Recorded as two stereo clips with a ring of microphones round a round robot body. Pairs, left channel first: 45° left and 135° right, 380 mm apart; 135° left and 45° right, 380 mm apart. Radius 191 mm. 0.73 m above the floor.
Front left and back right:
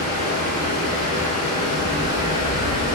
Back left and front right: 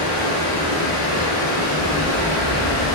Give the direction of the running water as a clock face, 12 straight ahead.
8 o'clock.